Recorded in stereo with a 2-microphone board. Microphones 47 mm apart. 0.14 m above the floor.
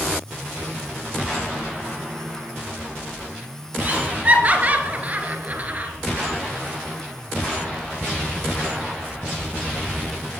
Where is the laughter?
35° right (ahead or behind), 2 m.